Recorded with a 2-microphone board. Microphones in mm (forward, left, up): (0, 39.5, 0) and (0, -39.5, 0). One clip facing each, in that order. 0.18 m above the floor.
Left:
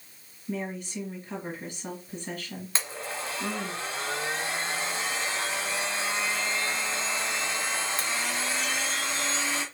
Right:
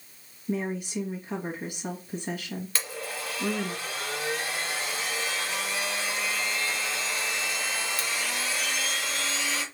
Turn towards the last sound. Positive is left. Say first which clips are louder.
# even
turn(degrees=25)  # may be behind; listen again after turning